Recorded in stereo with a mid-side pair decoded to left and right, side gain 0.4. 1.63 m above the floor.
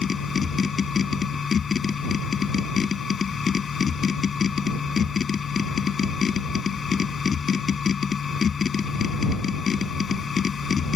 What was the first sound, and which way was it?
A machine running, 45° left.